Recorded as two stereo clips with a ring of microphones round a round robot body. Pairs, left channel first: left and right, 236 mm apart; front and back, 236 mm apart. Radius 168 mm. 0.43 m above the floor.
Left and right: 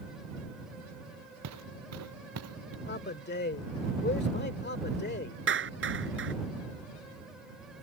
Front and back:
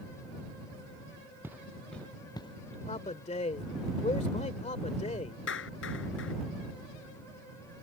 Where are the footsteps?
95° right; by 2.8 s 70° right.